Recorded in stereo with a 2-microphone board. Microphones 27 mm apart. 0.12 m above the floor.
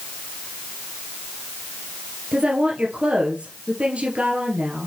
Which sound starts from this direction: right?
A woman speaking, at 2.3 s.